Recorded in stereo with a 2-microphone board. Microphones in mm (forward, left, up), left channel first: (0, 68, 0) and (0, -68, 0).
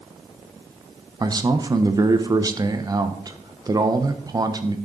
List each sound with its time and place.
1.2 s a man speaking: 30° right (ahead or behind), 0.8 m